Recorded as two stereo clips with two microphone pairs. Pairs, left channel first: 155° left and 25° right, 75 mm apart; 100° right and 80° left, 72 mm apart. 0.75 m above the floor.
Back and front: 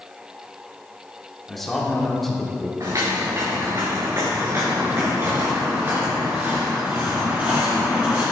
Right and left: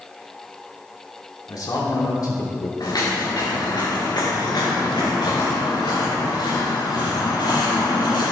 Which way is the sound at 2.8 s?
70° right.